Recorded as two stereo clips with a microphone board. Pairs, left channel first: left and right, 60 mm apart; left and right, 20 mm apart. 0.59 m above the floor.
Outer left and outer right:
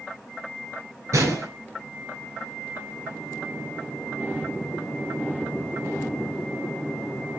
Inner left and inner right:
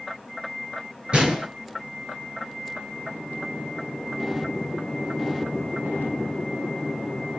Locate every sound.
1.1 s a gunshot: 60° right (ahead or behind), 5.5 m